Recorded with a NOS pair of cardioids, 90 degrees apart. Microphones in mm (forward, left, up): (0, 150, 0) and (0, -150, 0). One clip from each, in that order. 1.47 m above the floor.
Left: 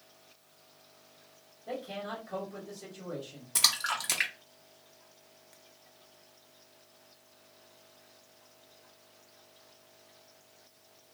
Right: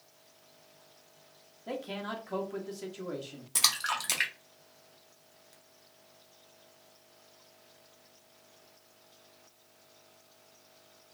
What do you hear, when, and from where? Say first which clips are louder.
1.7 s a man speaking: right 1 dB; 50° right, 1.3 m
3.5 s a splash: left 1 dB; straight ahead, 0.7 m